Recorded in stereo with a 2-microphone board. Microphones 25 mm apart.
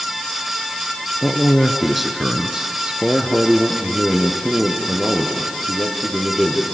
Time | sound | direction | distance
1.2 | a man speaking | 15° left (ahead or behind) | 1.6 m